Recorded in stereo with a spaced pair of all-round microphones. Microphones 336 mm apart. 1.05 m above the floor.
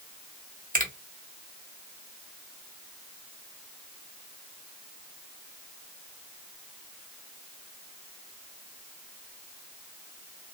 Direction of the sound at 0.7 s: 20° right (ahead or behind).